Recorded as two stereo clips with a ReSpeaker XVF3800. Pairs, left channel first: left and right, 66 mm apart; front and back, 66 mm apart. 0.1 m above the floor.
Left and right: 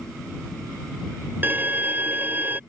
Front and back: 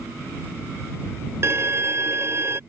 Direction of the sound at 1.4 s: 140° right.